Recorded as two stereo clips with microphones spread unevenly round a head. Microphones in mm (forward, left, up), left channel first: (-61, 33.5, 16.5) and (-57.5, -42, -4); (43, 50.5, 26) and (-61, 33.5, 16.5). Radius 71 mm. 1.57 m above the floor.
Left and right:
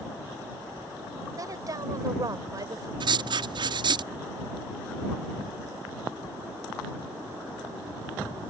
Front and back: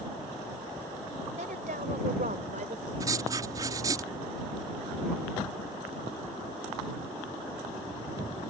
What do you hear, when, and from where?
1.4 s a woman speaking: 130° right
3.0 s writing: 105° right